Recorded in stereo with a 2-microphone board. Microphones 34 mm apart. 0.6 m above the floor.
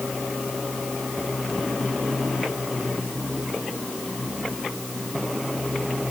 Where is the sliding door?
I don't hear a sliding door.